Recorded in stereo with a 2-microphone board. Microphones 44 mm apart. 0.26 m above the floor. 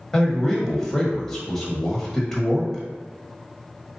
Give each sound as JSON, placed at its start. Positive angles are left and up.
{"t": 0.1, "sound": "a man speaking", "side_deg": 10, "distance_m": 1.2}